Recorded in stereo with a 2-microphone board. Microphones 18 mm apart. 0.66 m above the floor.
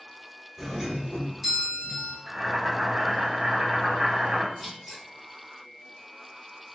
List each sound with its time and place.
0.6 s a doorbell: 5° right (ahead or behind), 1.2 m
2.3 s boiling: 55° right (ahead or behind), 1.4 m
4.5 s scissors: 20° right (ahead or behind), 1.3 m